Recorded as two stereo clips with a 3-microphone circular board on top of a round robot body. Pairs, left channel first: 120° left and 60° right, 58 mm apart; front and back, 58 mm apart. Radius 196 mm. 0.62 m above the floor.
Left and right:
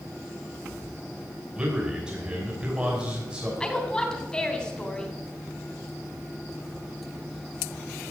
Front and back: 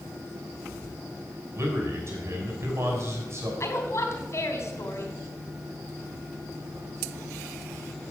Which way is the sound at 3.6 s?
40° left.